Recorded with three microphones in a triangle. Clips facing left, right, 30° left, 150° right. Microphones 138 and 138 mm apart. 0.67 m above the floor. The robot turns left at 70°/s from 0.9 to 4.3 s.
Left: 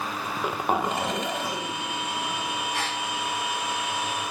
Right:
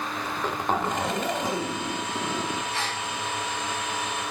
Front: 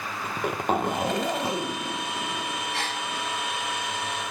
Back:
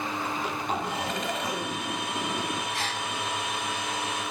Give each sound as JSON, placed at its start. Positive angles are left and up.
{"t": 0.2, "sound": "a zipper", "azimuth_deg": 15, "distance_m": 2.0}
{"t": 2.7, "sound": "a gasp", "azimuth_deg": 20, "distance_m": 8.0}